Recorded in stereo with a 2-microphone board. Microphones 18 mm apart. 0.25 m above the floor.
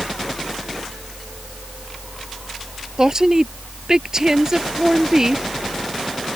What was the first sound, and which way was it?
A woman speaking, 35° right (ahead or behind).